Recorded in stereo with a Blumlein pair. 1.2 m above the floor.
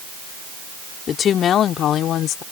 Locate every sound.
1.1 s a woman speaking: 25° left; by 2.4 s 35° left